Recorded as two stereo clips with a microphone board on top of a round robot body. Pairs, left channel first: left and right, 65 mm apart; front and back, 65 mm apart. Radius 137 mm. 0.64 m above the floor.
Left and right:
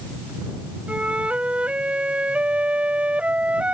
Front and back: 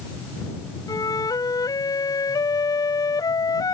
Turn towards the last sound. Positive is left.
turn(degrees=-20)